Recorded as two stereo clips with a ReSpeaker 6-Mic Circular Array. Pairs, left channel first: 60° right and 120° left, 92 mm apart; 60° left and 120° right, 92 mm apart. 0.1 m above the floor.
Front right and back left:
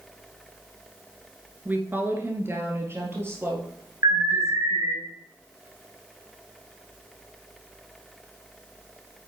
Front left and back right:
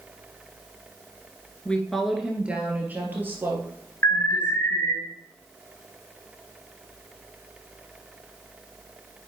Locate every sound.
1.6 s a woman speaking: 110° left, 1.3 m; by 5.0 s 175° right, 4 m
4.0 s an alarm: 110° left, 3 m